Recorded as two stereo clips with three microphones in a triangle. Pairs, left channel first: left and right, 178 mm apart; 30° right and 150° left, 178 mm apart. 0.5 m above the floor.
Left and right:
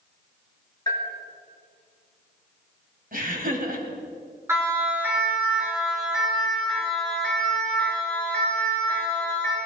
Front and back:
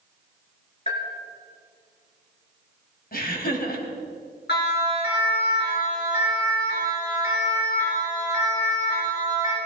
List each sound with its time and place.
0.9 s a bell: 20° left, 4.5 m
3.1 s laughter: 60° right, 3.5 m
4.5 s a siren: 15° right, 5 m; by 9.6 s 10° left, 8.5 m